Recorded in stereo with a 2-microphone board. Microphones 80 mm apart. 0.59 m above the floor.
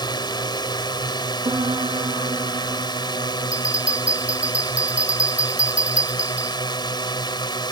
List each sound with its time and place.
0.0 s a drone: 65° left (ahead or behind)
1.4 s a piano: 90° right
3.5 s a bell: 15° right (ahead or behind)